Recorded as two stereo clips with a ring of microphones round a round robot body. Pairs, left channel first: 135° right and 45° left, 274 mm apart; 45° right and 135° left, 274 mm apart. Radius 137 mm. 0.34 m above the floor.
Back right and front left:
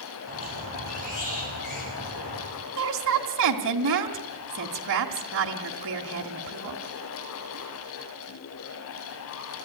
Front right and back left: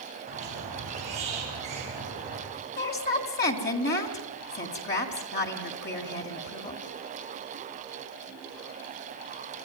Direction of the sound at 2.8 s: 5° left.